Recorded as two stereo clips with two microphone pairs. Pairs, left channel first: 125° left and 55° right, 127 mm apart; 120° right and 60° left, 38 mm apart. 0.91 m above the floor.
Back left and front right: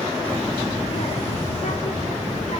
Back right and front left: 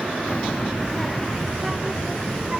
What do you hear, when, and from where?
0.3 s a child speaking: 165° right, 1.1 m; by 2.6 s 125° left, 3.5 m